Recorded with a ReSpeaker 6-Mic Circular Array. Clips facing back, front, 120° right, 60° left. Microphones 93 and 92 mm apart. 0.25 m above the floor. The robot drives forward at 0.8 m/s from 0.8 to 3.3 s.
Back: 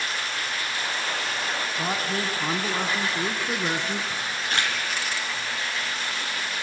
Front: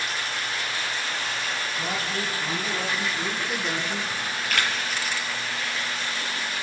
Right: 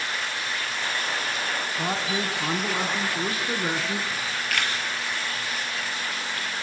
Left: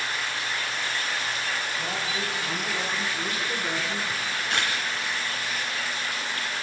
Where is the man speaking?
125° right, 1.9 m; by 4.0 s 150° right, 2.5 m.